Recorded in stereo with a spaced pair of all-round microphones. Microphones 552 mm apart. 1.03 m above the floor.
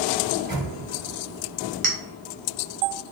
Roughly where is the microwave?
Right.